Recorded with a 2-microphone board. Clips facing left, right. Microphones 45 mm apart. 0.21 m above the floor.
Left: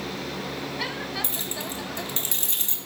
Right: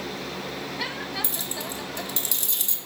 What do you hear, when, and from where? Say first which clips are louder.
1.2 s keys jangling: even; 35° left (ahead or behind), 1.4 m